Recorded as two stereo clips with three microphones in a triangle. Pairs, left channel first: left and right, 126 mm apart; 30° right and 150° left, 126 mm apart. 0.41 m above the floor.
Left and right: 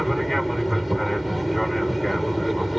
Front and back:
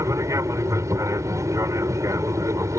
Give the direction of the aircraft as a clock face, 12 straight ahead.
6 o'clock.